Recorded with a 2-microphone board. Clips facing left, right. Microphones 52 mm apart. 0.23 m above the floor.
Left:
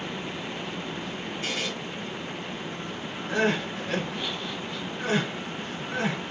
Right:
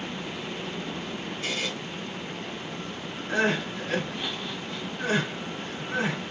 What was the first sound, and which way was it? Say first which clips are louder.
A buzzer: even; 40° left (ahead or behind).